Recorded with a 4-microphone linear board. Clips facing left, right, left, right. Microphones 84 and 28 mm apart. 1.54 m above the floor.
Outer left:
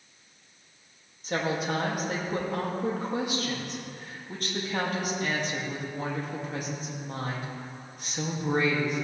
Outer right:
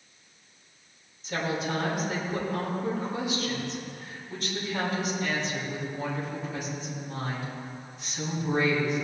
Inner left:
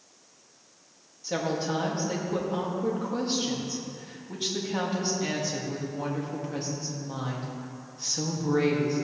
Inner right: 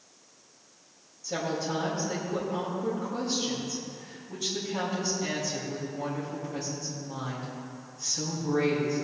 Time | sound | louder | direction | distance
1.2 | a woman speaking | outer left 1 dB, inner left 2 dB | 50° left (ahead or behind) | 2 m